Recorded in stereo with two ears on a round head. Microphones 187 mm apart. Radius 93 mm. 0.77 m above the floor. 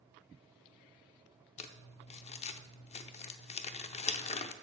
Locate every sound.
1.6 s crumpling: 30° left (ahead or behind), 0.7 m